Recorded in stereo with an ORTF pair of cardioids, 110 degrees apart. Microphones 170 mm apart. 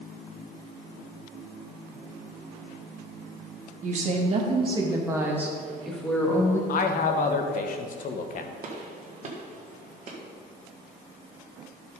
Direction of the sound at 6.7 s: 50° left.